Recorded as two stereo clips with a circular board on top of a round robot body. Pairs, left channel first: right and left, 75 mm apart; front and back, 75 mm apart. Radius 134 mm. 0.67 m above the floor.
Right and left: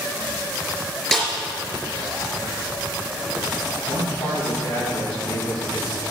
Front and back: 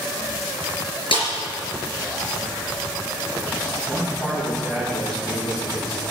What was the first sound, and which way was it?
A snare drum, 10° right.